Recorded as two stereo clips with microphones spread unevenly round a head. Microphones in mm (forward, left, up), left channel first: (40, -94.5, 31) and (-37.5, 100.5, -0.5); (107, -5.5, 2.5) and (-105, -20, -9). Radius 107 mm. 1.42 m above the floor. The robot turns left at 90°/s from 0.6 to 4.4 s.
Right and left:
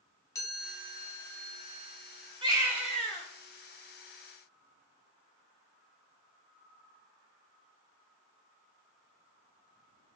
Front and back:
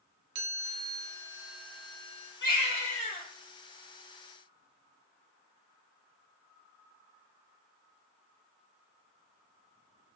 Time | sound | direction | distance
0.3 | a chime | 145° right | 1.0 m
2.4 | a baby crying | 50° left | 1.1 m